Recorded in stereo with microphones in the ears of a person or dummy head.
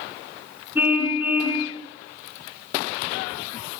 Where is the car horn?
20° right (ahead or behind), 6 m.